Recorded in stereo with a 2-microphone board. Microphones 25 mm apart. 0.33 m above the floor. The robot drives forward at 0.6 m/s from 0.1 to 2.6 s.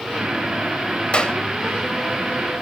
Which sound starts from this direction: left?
A clap, at 1.1 s.